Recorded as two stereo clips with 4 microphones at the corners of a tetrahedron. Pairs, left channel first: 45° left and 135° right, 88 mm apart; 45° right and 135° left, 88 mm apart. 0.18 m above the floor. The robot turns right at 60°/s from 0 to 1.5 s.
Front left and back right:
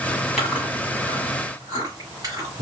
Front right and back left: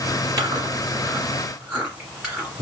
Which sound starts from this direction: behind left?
Chewing, at 0.4 s.